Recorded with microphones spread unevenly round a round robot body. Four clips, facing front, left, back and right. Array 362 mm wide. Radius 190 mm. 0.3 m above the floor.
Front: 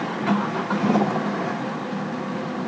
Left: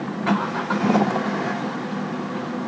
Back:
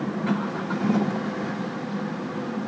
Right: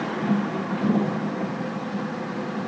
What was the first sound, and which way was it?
Only background noise.